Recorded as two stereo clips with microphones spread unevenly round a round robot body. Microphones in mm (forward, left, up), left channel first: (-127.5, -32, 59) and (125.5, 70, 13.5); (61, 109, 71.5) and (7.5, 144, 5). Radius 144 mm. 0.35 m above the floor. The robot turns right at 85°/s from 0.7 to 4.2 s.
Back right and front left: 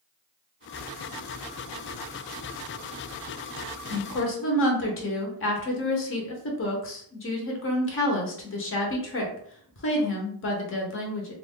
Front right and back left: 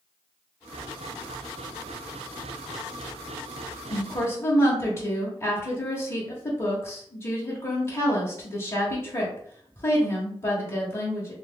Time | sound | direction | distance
3.9 | a woman speaking | 170° right | 0.9 m